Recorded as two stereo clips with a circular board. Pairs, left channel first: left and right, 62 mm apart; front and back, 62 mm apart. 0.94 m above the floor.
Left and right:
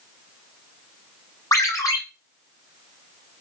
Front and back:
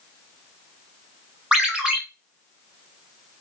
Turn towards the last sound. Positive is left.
turn(degrees=110)